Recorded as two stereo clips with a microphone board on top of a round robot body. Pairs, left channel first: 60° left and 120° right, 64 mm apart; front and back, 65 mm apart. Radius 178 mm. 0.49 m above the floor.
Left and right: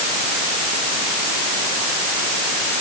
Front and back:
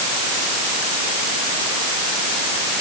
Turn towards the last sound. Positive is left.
No sound to turn to.